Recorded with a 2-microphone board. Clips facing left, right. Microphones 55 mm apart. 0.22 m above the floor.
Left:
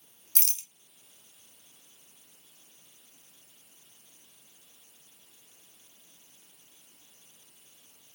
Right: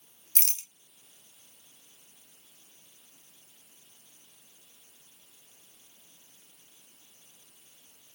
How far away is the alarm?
I don't hear an alarm.